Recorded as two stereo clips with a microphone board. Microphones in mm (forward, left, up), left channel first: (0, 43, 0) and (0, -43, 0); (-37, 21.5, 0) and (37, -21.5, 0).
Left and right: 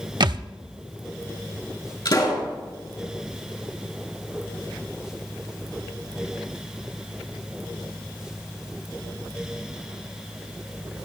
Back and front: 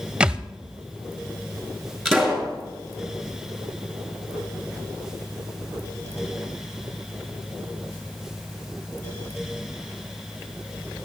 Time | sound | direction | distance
0.2 | a thud | 110° right | 0.6 m
2.0 | a pop | 60° left | 6 m